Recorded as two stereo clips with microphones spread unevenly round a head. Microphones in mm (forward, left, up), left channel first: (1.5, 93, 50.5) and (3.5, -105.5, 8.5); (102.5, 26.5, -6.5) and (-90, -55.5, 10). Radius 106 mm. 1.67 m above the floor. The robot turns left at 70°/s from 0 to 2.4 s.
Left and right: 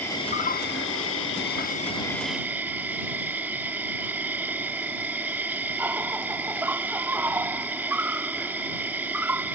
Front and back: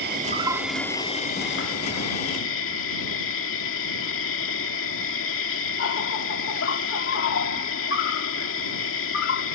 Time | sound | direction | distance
0.0 | an insect | 165° left | ?